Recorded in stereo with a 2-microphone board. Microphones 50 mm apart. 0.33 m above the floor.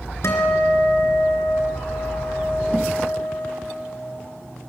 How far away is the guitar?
About 3 m.